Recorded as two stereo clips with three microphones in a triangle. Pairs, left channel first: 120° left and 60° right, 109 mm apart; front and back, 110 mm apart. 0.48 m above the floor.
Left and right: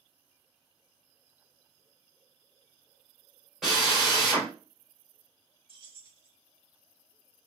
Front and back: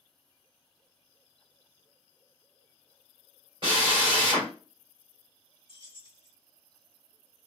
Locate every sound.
3.6 s a drill: 150° right, 1.9 m
5.7 s keys jangling: 35° right, 1.3 m